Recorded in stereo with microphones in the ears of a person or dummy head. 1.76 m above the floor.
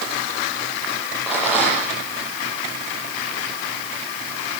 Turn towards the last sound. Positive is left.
turn(degrees=0)  # may be behind; listen again after turning